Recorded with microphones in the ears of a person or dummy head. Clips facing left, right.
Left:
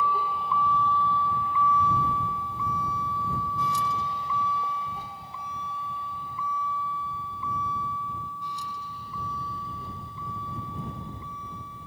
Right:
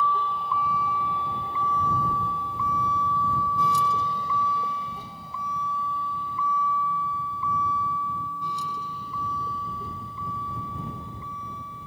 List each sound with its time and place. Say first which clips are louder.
0.0 s a vehicle: right 1 dB; 10° left (ahead or behind); by 11.9 s 65° right (ahead or behind)